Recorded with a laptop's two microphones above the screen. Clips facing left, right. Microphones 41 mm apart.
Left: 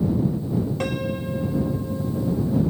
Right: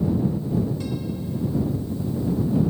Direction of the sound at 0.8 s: 70° left (ahead or behind).